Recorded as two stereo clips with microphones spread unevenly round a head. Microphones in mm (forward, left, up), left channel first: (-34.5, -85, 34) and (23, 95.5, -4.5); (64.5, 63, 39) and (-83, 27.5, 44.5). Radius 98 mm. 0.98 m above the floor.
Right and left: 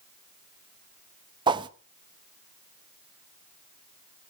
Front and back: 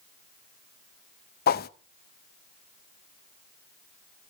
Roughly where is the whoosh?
Ahead.